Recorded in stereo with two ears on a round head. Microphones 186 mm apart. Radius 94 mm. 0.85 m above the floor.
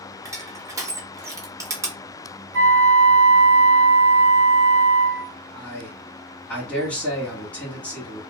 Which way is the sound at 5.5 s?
5° left (ahead or behind).